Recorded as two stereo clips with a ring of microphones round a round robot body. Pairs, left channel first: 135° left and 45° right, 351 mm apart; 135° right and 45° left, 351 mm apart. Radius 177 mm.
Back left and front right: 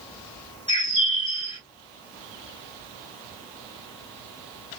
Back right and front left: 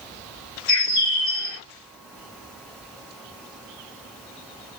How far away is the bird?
About 2 m.